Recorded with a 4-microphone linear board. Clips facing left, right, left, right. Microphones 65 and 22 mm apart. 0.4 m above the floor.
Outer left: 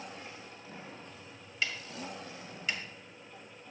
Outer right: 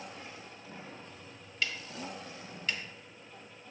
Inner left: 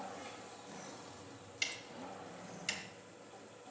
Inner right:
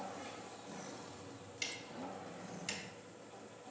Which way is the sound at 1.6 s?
5° left (ahead or behind).